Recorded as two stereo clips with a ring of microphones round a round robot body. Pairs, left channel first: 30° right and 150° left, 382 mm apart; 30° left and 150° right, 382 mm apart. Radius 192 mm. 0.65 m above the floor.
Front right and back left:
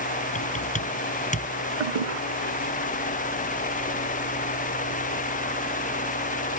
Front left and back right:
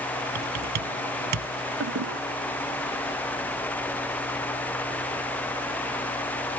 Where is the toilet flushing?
155° left.